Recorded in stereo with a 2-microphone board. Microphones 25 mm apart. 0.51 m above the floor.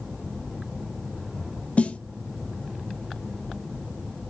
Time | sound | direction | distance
1.8 | a snare drum | 60° left (ahead or behind) | 0.8 m